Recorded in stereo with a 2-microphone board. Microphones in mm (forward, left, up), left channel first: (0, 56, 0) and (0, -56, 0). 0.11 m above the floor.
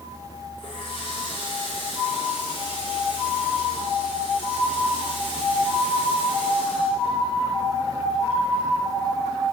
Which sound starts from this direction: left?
A running tap, at 0.6 s.